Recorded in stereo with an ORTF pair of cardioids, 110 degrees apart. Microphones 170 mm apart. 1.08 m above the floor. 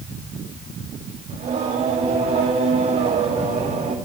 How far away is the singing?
About 2.5 m.